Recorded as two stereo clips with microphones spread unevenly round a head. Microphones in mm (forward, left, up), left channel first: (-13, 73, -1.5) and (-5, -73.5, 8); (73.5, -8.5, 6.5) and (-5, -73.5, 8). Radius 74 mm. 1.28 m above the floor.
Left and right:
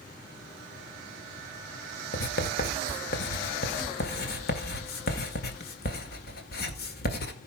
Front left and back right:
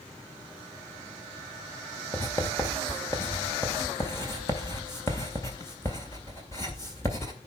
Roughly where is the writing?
Left.